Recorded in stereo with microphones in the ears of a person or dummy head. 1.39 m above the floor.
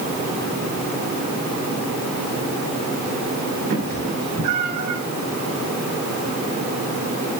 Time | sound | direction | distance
3.7 | a cat meowing | 50° right (ahead or behind) | 3 m